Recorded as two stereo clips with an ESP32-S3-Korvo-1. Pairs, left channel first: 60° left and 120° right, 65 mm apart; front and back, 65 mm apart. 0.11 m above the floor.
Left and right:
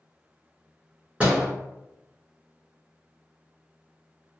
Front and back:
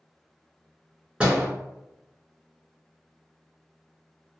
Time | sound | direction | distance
1.2 | a door slam | 140° right | 1.1 m